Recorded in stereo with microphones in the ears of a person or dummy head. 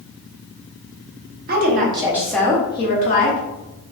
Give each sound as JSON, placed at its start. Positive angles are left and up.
{"t": 1.5, "sound": "a woman speaking", "side_deg": -50, "distance_m": 0.8}